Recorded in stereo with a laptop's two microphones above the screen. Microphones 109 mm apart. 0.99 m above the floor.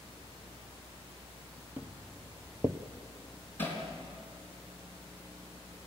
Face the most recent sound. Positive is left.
turn(degrees=20)  # may be behind; listen again after turning